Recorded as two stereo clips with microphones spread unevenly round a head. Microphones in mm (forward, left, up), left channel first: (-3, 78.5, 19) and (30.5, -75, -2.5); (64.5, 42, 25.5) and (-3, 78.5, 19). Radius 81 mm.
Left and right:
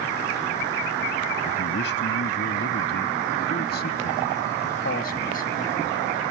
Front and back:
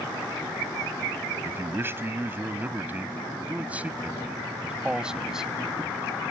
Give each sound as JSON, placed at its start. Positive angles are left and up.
{"t": 1.4, "sound": "a man speaking", "azimuth_deg": 95}